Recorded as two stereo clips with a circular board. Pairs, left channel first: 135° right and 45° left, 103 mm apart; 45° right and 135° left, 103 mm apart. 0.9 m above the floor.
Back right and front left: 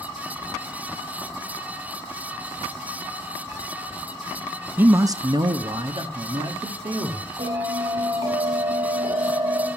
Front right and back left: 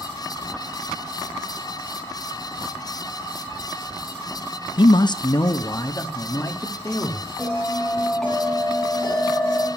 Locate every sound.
4.8 s a man speaking: 25° right, 0.5 m; by 7.3 s 20° left, 2 m
7.4 s a bell: 40° left, 7.5 m